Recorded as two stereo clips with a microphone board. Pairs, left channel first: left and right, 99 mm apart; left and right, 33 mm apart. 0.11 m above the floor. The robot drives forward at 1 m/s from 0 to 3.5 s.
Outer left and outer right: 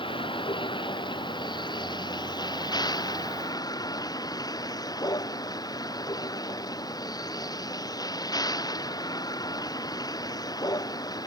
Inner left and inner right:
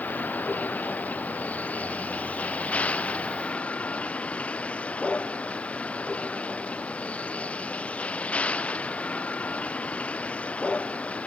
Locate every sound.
0.0 s a vehicle: 60° left (ahead or behind); by 11.3 s 40° left (ahead or behind)